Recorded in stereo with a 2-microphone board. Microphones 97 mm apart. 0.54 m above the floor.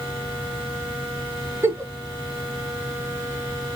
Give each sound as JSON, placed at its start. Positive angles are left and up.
{"t": 1.6, "sound": "a giggle", "side_deg": -30, "distance_m": 1.4}